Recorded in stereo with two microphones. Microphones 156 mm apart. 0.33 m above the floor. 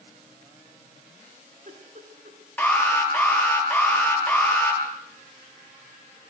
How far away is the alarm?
About 7 m.